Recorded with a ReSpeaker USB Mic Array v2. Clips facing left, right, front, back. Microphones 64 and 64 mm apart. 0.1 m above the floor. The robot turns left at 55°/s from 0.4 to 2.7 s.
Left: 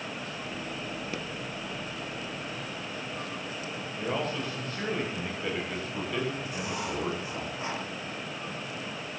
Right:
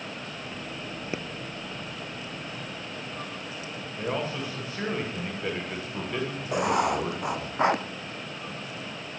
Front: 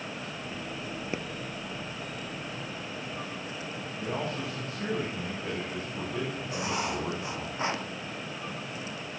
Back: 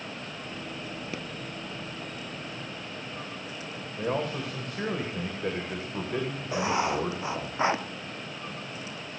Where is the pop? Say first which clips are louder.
Right 5 dB, front 4 dB; 50° right, 1.4 m; by 1.2 s 55° right, 1.4 m.